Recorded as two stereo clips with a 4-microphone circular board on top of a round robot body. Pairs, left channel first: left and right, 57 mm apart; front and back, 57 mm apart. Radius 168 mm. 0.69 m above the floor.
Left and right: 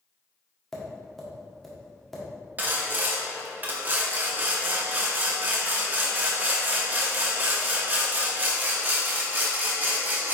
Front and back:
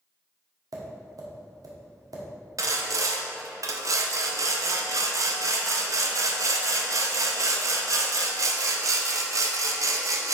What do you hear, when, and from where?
0.7 s tapping: 175° left, 1.4 m
2.6 s sawing: 150° right, 0.7 m